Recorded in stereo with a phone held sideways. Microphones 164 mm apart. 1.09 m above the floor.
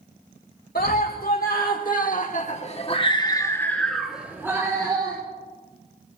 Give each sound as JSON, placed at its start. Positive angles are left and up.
{"t": 0.8, "sound": "a scream", "side_deg": 65, "distance_m": 1.7}